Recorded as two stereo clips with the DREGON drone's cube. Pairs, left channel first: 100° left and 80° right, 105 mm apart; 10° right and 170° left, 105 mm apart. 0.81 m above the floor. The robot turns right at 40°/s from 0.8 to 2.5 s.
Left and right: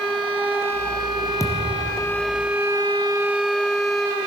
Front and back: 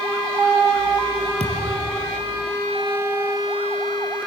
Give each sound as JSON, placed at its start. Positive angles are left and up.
{"t": 1.4, "sound": "a thud", "azimuth_deg": 160, "distance_m": 3.0}